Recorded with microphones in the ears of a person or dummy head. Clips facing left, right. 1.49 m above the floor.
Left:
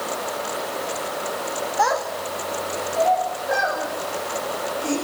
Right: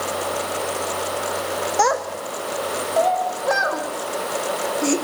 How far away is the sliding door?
I don't hear a sliding door.